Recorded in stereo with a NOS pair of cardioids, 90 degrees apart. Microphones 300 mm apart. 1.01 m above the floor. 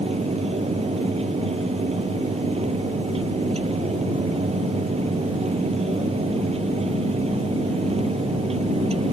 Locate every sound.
0.0 s a fan: 20° right